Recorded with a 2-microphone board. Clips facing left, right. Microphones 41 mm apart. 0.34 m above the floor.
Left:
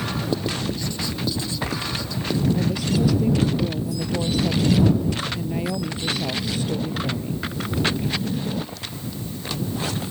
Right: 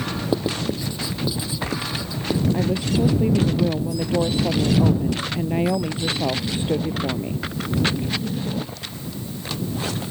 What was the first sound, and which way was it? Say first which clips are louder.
Writing: right 5 dB; 10° right (ahead or behind).